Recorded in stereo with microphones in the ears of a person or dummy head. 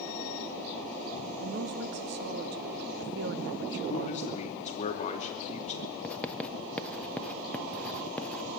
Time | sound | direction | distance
1.4 | a woman speaking | 55° right (ahead or behind) | 1.2 m
3.9 | a man speaking | 35° left (ahead or behind) | 2.5 m
6.0 | writing | 5° left (ahead or behind) | 0.6 m